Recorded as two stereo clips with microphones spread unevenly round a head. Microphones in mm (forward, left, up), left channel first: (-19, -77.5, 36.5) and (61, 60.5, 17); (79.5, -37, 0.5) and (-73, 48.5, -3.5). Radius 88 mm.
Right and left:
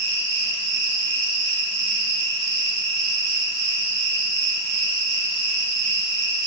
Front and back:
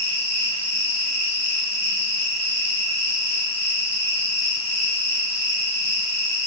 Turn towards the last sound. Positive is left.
turn(degrees=50)